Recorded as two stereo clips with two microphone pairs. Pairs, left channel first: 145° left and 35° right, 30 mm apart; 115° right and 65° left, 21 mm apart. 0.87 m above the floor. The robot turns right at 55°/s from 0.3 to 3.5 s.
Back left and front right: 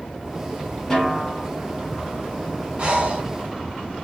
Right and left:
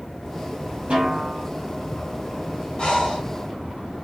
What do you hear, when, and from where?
0.9 s a snare drum: 70° left, 1.5 m; by 1.5 s 100° left, 1.5 m
2.8 s breathing: 80° right, 1.1 m; by 3.2 s 55° right, 1.1 m